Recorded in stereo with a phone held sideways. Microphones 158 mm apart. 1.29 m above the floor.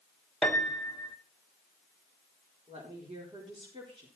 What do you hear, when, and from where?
0.4 s a piano: 5° left (ahead or behind), 1.5 m
2.7 s a woman speaking: 35° right (ahead or behind), 4.5 m